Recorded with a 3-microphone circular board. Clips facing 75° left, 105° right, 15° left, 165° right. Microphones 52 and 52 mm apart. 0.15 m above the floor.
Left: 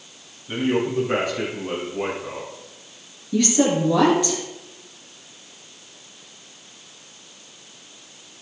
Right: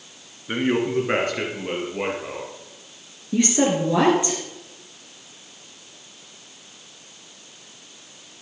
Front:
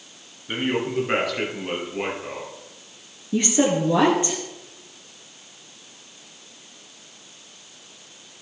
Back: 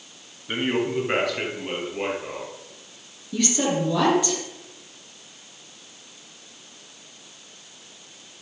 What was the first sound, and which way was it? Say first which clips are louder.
A man speaking: even, even; 80° right.